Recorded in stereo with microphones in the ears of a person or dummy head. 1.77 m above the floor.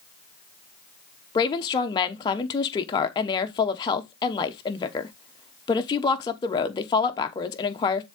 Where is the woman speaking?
25° left (ahead or behind), 1.0 m.